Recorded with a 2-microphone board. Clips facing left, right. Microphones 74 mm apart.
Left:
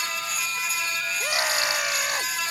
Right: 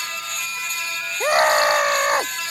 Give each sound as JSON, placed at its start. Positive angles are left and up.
{"t": 1.2, "sound": "a scream", "side_deg": -45}